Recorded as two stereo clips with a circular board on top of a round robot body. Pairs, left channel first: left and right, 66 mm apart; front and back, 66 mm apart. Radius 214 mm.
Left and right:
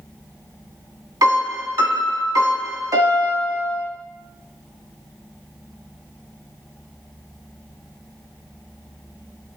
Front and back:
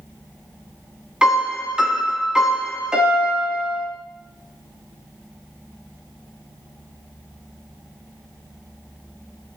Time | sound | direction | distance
1.2 | a piano | 105° right | 1.9 m